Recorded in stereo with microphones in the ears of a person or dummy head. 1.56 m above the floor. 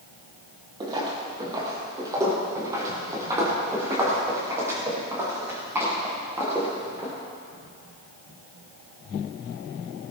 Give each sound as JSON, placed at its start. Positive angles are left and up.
{"t": 0.8, "sound": "footsteps", "side_deg": -20, "distance_m": 3.5}